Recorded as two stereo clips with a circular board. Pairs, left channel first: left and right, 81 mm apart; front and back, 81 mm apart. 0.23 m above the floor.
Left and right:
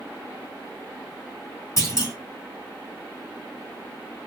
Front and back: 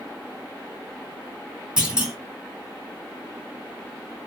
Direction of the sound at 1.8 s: 110° left.